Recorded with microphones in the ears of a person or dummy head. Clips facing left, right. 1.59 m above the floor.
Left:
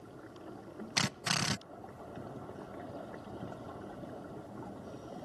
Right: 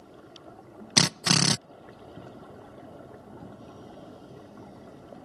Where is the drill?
65° right (ahead or behind).